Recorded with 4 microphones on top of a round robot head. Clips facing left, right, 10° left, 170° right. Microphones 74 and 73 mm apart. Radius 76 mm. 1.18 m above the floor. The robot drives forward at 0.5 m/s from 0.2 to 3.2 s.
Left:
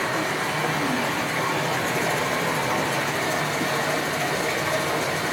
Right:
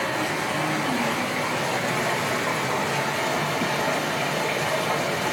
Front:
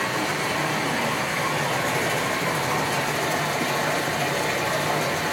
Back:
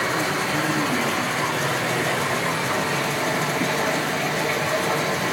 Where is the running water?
145° left, 3.5 m; by 5.3 s 155° left, 4.5 m.